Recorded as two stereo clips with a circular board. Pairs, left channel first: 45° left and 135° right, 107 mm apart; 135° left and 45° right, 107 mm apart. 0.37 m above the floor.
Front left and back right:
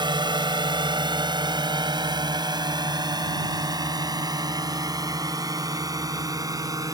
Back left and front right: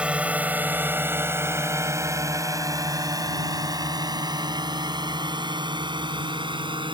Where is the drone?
120° right; by 7.0 s 80° right.